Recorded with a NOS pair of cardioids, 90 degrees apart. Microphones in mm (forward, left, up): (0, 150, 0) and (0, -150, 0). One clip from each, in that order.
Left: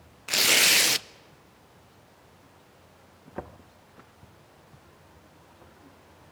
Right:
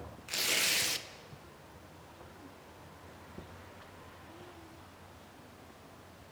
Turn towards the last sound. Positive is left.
turn(degrees=50)